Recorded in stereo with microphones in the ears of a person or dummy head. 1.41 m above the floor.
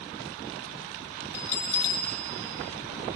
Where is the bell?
40° left (ahead or behind), 3 m.